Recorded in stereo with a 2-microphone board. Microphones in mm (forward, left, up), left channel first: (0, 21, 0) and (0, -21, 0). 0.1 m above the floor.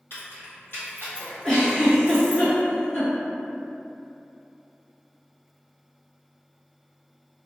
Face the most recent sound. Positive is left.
turn(degrees=15)  # may be behind; listen again after turning